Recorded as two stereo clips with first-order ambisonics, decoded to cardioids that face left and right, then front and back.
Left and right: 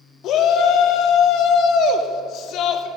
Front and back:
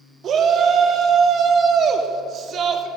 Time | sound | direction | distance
0.2 | a shout | 125° left | 0.9 m